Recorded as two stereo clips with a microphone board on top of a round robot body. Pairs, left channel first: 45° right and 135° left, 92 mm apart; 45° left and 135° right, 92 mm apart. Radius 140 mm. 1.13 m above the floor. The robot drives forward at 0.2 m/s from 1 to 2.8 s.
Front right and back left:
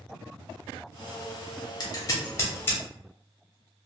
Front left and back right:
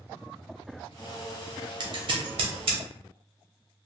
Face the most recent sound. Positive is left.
turn(degrees=-115)